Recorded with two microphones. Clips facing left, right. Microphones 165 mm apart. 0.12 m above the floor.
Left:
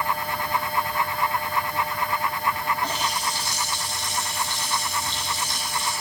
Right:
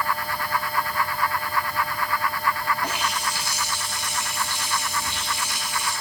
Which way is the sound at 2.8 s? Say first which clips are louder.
Even; 15° right (ahead or behind).